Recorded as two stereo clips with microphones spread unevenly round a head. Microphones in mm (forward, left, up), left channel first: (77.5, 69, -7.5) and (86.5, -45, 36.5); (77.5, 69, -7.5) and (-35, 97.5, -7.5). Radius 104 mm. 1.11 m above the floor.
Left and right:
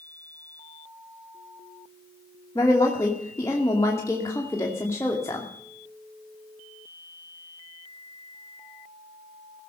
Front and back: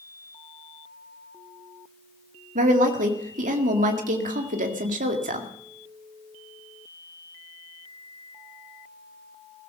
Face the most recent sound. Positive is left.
turn(degrees=170)